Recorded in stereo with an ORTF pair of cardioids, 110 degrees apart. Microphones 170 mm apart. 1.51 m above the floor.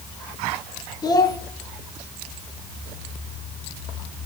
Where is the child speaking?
25° left, 2 m.